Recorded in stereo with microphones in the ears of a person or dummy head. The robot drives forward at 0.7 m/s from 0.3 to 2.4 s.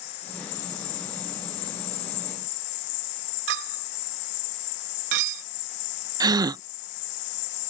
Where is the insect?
45° left (ahead or behind); by 7.7 s 70° left (ahead or behind).